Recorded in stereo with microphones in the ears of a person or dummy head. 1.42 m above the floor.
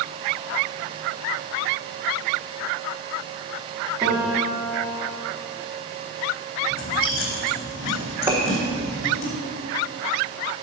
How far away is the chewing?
About 3.5 m.